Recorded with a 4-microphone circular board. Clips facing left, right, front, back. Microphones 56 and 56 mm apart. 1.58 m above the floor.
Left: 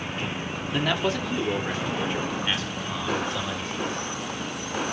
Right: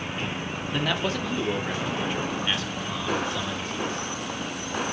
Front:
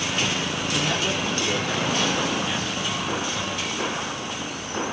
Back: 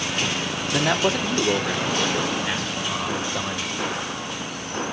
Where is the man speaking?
175° left, 1.3 m; by 4.0 s straight behind, 3 m.